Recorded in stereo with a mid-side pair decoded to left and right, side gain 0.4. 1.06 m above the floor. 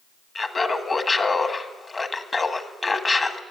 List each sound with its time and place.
0.3 s laughter: 35° left, 1.6 m